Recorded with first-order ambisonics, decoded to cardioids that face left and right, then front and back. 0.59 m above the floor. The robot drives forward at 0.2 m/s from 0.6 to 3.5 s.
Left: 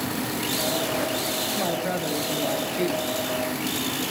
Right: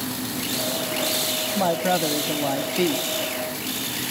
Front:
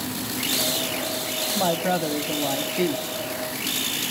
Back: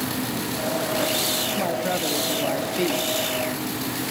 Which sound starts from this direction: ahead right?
A woman speaking, at 1.6 s.